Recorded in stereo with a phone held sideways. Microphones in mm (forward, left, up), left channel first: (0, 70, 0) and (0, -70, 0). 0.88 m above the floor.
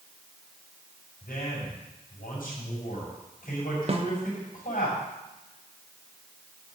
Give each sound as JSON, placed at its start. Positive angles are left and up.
{"t": 1.2, "sound": "a man speaking", "side_deg": 80, "distance_m": 6.0}
{"t": 3.9, "sound": "a snare drum", "side_deg": -45, "distance_m": 1.0}